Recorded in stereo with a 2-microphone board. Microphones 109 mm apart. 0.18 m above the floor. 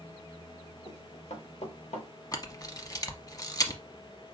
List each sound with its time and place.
0.8 s running footsteps: 65° left (ahead or behind), 3 m; by 2.1 s 85° left, 3.5 m
2.3 s a camera shutter: 35° left (ahead or behind), 0.9 m